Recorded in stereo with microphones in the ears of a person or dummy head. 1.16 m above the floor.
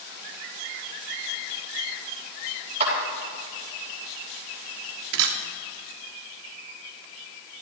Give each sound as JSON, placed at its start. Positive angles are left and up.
{"t": 2.8, "sound": "a clap", "side_deg": -40, "distance_m": 4.5}
{"t": 5.1, "sound": "a camera shutter", "side_deg": -75, "distance_m": 1.5}